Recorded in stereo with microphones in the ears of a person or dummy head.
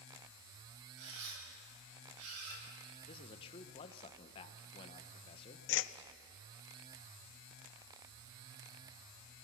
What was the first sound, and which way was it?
A camera shutter, 80° right.